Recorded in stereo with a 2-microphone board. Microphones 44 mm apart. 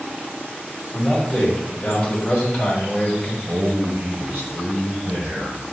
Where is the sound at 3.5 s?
55° right (ahead or behind), 1.9 m.